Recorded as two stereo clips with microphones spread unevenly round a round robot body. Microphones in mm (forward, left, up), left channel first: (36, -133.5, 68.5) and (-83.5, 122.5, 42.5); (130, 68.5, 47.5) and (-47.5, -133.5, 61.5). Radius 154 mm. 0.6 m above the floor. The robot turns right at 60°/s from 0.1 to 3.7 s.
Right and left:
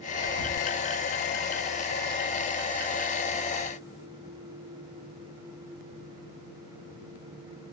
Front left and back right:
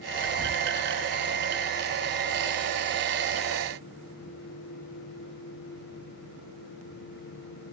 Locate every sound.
0.2 s whispering: 10° left, 1.1 m; by 0.5 s 30° left, 1.1 m